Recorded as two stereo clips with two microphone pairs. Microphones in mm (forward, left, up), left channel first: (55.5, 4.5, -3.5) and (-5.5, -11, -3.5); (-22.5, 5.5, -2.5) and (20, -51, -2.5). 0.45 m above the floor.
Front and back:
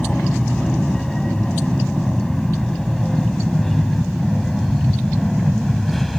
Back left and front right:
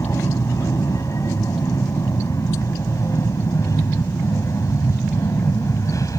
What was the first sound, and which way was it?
An aircraft, 95° left.